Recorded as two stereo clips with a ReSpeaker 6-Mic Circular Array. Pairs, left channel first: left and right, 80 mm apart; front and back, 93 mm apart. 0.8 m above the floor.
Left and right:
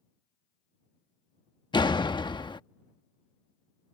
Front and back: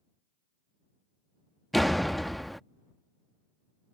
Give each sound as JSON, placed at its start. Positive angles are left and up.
{"t": 1.7, "sound": "a door slam", "azimuth_deg": 90}